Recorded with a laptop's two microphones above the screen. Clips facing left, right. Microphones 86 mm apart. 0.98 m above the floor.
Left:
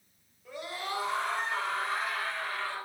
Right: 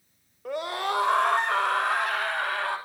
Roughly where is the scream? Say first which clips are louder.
Right 9 dB; right.